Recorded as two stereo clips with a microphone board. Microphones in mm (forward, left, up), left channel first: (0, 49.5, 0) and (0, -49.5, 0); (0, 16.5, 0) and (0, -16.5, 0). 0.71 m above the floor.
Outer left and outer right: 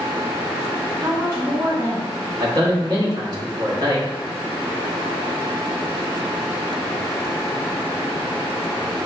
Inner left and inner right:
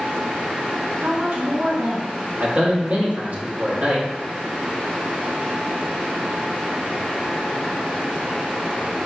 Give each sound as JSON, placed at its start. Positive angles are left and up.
{"t": 1.0, "sound": "a woman speaking", "side_deg": -30, "distance_m": 1.3}
{"t": 2.4, "sound": "a man speaking", "side_deg": -40, "distance_m": 1.1}